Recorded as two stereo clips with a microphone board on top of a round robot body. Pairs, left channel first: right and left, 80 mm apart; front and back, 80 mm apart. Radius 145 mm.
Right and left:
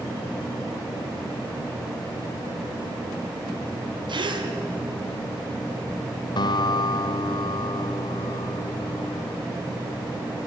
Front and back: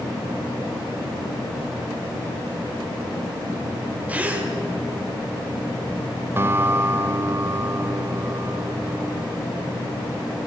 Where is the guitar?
120° right, 0.6 m.